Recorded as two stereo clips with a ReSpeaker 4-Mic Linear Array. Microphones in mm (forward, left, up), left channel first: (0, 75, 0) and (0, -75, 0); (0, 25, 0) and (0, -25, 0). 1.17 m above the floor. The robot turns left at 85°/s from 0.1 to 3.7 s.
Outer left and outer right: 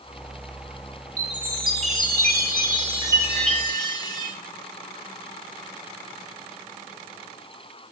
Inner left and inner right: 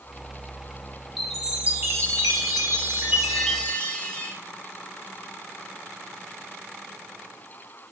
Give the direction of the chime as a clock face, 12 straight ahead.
12 o'clock.